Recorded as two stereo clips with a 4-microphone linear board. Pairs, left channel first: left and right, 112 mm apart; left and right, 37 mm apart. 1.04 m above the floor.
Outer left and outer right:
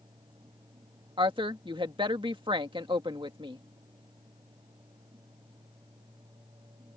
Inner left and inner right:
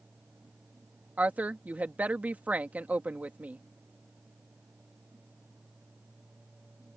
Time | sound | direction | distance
1.2 | a woman speaking | 50° right (ahead or behind) | ?